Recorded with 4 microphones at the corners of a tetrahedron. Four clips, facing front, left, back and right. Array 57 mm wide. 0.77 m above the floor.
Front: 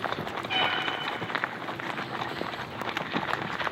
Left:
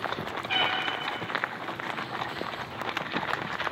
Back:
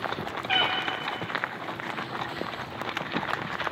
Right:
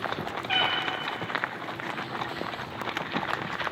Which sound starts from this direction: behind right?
A cat meowing, at 0.5 s.